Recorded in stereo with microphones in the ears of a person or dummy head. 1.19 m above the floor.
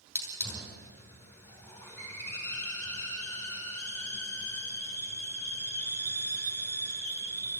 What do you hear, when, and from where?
0.1 s a hiss: 10° left (ahead or behind), 5.5 m